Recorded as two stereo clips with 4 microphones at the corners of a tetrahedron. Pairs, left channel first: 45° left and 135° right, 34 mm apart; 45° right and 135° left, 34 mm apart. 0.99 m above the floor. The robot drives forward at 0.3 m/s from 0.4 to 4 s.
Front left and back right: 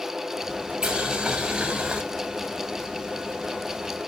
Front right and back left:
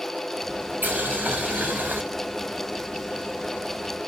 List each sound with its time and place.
0.8 s boiling: 160° left, 4 m; by 2.0 s 165° left, 4 m